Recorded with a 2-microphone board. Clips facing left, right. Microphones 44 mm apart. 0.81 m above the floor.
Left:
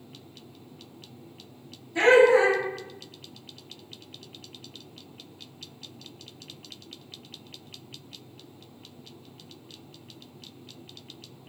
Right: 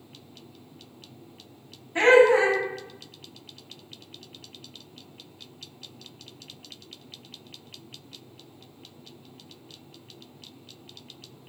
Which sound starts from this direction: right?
Laughter, at 1.9 s.